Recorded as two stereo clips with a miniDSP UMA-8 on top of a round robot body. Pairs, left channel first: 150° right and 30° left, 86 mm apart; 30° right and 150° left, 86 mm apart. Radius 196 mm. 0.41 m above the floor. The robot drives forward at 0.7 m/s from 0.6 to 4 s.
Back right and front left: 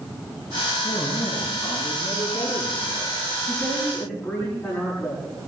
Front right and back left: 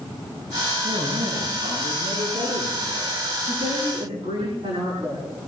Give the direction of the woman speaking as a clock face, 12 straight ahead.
7 o'clock.